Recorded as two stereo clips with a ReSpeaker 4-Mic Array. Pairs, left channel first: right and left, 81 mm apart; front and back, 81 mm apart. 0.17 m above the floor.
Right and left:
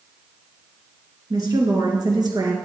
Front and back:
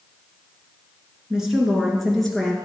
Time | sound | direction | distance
1.3 | a woman speaking | 100° left | 2 m